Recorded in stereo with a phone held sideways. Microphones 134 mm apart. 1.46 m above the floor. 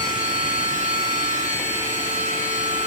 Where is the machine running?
75° right (ahead or behind), 7 m.